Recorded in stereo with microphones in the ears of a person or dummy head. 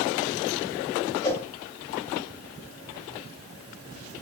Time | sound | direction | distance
1.2 | a whoosh | 20° left (ahead or behind) | 1.6 m